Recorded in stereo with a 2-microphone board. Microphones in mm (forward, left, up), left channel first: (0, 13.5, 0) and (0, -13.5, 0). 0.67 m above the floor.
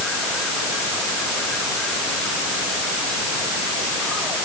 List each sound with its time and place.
Only background noise.